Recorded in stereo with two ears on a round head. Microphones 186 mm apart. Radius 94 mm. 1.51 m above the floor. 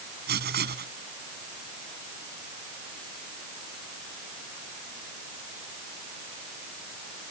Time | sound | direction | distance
0.3 | writing | 50° right (ahead or behind) | ?